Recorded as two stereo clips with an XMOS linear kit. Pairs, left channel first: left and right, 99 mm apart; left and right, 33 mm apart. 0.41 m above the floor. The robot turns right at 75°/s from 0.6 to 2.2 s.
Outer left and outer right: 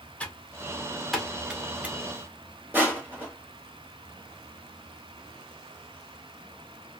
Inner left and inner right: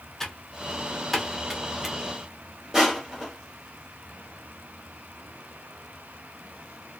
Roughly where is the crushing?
Right.